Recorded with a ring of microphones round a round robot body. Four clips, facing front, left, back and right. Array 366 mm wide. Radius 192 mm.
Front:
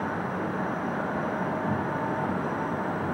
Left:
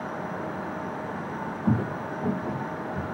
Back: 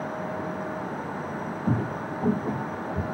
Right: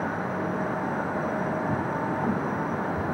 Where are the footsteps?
125° left, 0.9 m; by 3.0 s straight behind, 1.6 m.